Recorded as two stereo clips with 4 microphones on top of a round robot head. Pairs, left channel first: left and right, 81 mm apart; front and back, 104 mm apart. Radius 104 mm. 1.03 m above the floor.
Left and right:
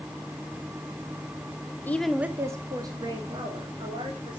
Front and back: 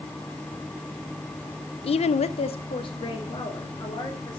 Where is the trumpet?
I don't hear a trumpet.